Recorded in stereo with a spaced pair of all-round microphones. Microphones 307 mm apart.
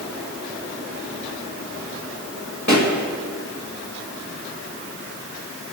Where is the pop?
60° left (ahead or behind), 2.0 m.